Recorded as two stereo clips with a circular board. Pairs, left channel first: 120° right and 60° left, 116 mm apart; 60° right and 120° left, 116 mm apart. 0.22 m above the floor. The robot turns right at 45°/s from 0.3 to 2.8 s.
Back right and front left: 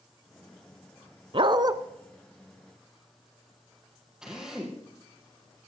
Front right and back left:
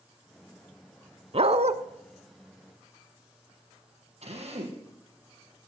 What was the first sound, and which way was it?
A dog barking, 95° left.